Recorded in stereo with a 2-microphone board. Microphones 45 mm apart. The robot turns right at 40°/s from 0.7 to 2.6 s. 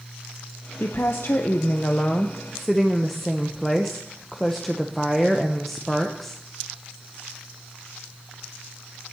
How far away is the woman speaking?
About 0.7 m.